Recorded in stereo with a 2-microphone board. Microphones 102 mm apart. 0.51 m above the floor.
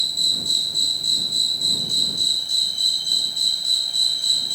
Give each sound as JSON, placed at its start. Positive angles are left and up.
{"t": 0.0, "sound": "an insect", "side_deg": 0}